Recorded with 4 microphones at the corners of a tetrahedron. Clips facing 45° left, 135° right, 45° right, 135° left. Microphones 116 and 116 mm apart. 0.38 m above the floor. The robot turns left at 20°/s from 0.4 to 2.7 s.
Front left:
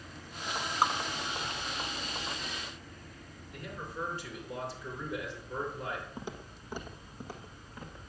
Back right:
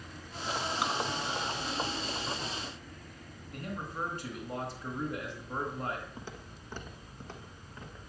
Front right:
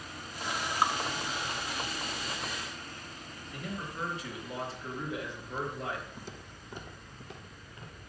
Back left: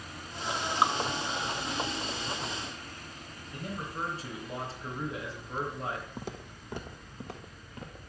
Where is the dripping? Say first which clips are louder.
Front left 6 dB, back left 2 dB; 75° left, 0.7 m; by 0.9 s 70° left, 0.7 m.